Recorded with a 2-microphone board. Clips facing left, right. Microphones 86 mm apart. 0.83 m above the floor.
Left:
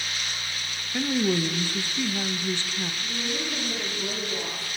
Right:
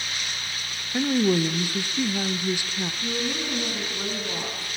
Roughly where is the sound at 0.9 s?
Centre.